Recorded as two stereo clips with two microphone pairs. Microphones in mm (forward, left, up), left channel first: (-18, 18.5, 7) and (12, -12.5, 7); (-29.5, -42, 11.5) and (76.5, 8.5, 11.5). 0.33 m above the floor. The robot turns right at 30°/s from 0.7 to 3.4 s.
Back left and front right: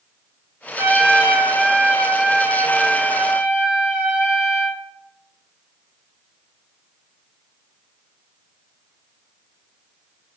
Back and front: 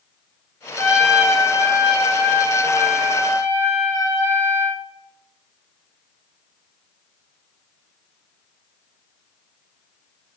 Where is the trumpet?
65° right, 0.9 m; by 4.8 s 15° left, 0.9 m.